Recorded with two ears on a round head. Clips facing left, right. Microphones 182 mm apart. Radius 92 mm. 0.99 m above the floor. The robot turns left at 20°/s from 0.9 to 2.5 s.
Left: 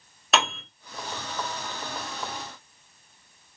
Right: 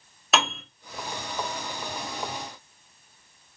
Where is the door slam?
No door slam in this recording.